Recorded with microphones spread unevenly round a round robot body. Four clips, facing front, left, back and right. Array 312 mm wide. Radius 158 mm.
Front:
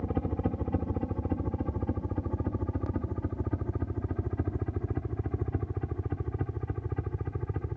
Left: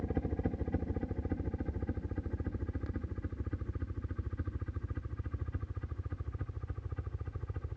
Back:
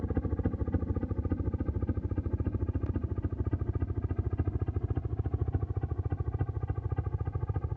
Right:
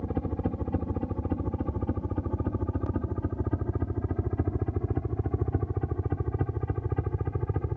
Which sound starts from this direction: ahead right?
A helicopter, at 0.0 s.